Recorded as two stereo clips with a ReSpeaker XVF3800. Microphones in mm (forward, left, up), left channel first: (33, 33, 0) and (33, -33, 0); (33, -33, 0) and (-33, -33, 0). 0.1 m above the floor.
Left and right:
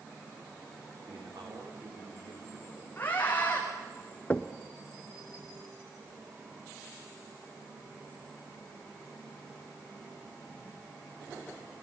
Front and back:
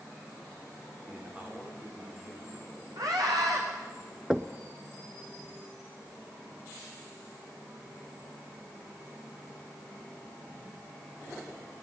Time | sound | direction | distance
1.1 | a man speaking | 105° right | 7 m
3.0 | a scream | 155° left | 7.5 m
4.3 | knocking | 105° left | 0.8 m